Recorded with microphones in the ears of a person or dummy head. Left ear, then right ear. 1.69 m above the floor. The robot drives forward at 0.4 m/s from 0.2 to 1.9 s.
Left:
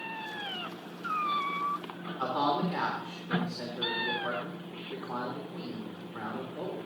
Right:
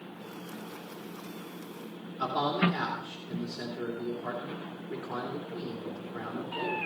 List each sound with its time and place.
2.2 s a man speaking: 10° right (ahead or behind), 3.5 m